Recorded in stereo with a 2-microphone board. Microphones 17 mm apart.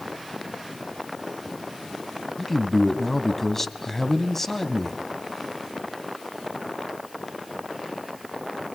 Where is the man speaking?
20° left (ahead or behind), 1.0 m.